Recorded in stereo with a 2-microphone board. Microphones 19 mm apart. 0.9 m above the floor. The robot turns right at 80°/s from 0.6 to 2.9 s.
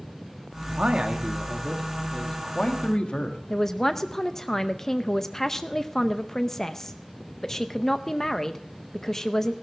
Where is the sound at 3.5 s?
25° left (ahead or behind), 0.6 m.